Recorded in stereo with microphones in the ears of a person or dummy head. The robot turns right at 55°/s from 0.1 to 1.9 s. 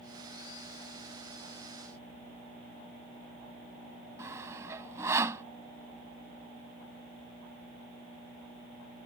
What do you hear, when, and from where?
4.2 s sawing: 20° right (ahead or behind)